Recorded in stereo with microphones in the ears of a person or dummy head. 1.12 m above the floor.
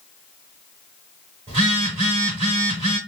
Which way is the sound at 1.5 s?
25° right (ahead or behind).